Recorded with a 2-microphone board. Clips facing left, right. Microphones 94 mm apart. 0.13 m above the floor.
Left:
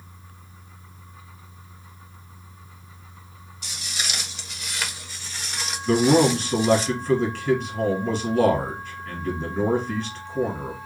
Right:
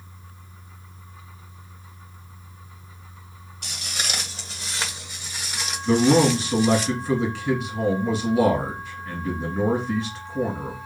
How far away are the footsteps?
About 1.4 m.